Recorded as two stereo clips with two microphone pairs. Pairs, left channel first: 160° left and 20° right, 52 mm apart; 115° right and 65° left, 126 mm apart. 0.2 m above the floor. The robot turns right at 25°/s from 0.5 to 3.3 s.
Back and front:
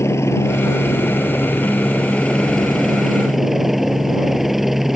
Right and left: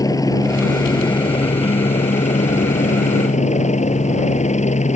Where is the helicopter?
175° right; by 5.0 s 105° right.